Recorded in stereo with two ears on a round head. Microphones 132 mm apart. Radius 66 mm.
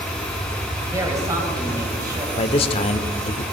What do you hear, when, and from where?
0.9 s a woman speaking: 20° right (ahead or behind), 3 m; by 2.3 s 25° right (ahead or behind), 3.5 m
2.4 s a man speaking: 40° left (ahead or behind), 1.0 m